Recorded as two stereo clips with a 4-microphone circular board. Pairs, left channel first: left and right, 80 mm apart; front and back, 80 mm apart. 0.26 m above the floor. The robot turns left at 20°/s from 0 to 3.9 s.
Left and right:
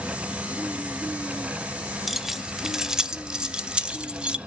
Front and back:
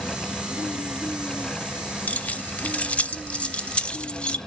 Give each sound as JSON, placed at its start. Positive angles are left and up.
{"t": 2.1, "sound": "keys jangling", "azimuth_deg": -10, "distance_m": 0.6}